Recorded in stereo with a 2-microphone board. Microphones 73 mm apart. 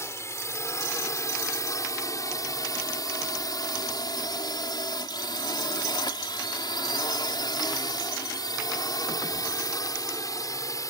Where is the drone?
40° left (ahead or behind); by 10.9 s 50° left (ahead or behind).